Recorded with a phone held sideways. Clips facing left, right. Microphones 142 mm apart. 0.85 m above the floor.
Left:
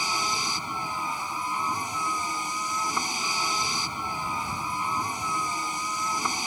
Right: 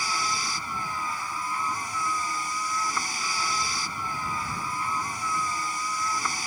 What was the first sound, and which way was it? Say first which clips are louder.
A vehicle: even; 20° left (ahead or behind).